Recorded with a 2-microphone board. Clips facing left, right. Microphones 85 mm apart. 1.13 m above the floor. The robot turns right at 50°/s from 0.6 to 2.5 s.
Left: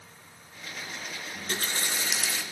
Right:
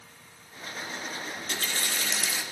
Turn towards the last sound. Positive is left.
turn(degrees=-170)